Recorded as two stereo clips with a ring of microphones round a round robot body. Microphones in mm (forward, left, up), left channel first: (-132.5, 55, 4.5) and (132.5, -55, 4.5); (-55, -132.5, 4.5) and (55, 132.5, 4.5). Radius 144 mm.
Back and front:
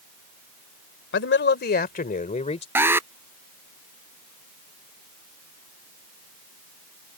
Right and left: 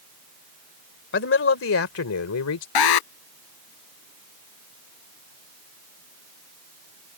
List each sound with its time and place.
1.1 s a man speaking: 160° right; by 2.6 s 135° right
2.8 s an alarm: 105° right